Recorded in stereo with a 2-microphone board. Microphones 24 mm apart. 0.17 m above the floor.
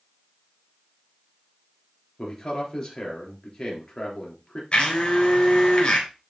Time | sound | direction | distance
2.2 | a man speaking | 25° left (ahead or behind) | 3 m
4.7 | a blender | 40° left (ahead or behind) | 3 m